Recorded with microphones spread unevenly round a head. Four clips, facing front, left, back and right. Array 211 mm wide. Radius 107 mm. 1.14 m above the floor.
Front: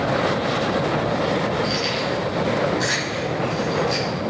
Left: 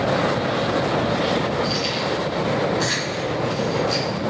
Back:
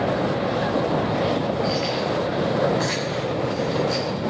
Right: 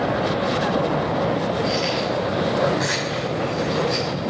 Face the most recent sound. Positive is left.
turn(degrees=165)